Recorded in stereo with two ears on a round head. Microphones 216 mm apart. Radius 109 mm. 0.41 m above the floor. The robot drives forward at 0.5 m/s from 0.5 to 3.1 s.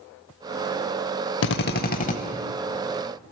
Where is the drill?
50° left (ahead or behind), 0.6 m; by 2.2 s 35° left (ahead or behind), 0.8 m.